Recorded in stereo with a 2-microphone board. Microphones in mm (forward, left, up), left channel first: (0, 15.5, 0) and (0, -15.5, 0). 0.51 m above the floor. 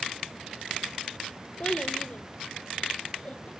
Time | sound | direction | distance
1.6 | a child speaking | 35° left (ahead or behind) | 1.0 m